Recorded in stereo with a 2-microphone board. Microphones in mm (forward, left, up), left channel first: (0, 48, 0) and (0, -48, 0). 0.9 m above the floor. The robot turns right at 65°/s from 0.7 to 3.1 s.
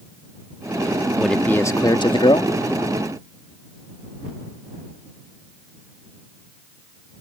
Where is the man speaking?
Straight ahead; by 2.5 s 85° left.